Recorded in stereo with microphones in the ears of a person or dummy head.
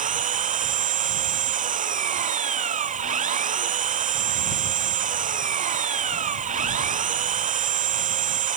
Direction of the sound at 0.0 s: 40° right (ahead or behind).